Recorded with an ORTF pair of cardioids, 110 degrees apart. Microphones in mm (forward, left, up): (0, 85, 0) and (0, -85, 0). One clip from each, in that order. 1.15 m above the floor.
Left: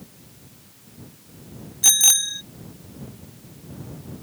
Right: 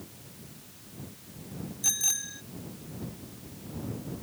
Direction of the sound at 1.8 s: 70° left.